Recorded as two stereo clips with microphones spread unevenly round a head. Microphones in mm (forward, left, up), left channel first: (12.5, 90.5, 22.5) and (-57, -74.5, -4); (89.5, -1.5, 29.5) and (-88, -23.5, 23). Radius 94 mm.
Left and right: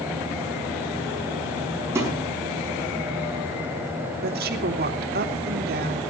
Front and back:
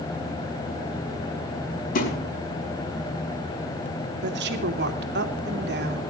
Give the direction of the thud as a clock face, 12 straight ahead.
1 o'clock.